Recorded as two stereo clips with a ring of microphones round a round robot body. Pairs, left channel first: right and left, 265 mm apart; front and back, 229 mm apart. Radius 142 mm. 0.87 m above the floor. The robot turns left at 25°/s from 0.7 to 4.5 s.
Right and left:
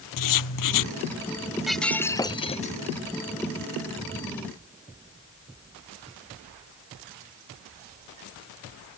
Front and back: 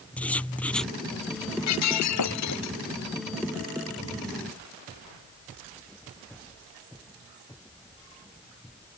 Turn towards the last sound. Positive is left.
turn(degrees=-70)